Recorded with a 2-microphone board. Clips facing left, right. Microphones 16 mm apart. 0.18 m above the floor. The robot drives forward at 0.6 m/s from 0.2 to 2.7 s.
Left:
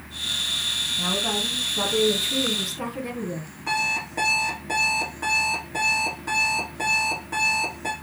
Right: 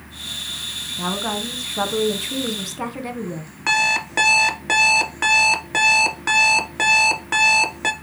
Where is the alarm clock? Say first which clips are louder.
Right 6 dB; 60° right (ahead or behind), 1.2 m.